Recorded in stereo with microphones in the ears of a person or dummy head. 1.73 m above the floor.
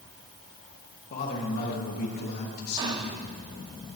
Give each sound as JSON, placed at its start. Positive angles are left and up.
{"t": 1.1, "sound": "a man speaking", "side_deg": 55, "distance_m": 3.0}
{"t": 2.8, "sound": "whispering", "side_deg": -20, "distance_m": 0.7}